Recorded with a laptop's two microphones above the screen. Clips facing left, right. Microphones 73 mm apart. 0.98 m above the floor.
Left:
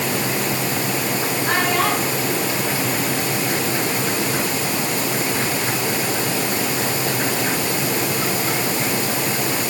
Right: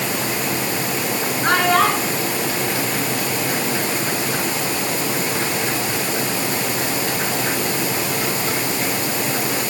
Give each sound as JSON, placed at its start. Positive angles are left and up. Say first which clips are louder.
{"t": 1.4, "sound": "a child speaking", "louder": "right 5 dB", "side_deg": -90, "distance_m": 9.0}